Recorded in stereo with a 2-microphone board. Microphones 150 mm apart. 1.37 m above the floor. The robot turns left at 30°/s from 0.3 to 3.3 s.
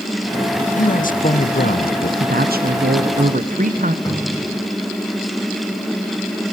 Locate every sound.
0.8 s a man speaking: 120° left, 1.0 m; by 2.1 s 80° left, 1.0 m
2.2 s a woman speaking: 85° right, 0.9 m; by 4.0 s 120° right, 0.9 m
4.0 s a cupboard door: 25° left (ahead or behind), 6.5 m